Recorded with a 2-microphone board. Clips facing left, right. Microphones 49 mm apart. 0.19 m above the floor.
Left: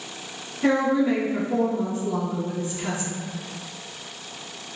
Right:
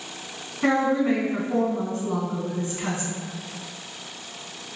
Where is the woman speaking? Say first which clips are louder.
Left 1 dB; 45° right (ahead or behind), 1.6 m.